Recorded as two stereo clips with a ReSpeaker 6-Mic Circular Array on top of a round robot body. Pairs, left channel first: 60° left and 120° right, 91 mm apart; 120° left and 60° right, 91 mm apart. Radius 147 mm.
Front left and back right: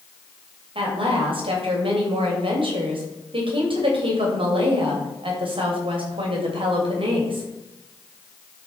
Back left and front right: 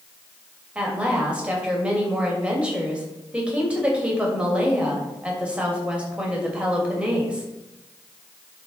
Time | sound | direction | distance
0.8 | a woman speaking | 140° right | 3 m